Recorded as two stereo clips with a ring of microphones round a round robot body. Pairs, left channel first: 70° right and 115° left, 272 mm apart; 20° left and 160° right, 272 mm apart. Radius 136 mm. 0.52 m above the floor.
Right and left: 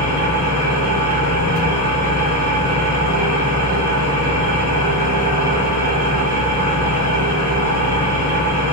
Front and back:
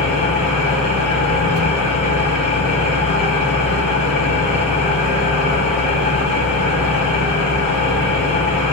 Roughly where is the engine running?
Behind left.